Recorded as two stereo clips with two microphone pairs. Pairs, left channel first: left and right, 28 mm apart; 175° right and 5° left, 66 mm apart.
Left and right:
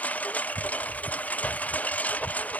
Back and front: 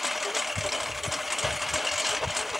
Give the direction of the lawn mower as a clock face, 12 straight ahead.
9 o'clock.